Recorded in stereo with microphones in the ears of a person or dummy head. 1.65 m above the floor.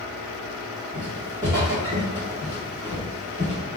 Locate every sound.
0.9 s footsteps: 25° right (ahead or behind), 1.8 m; by 3.6 s 5° left (ahead or behind), 2 m